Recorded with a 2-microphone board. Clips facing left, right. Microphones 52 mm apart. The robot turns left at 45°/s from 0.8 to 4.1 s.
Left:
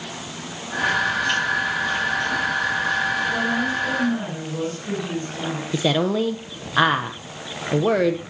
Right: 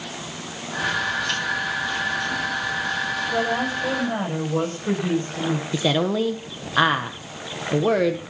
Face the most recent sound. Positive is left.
turn(degrees=5)  # may be behind; listen again after turning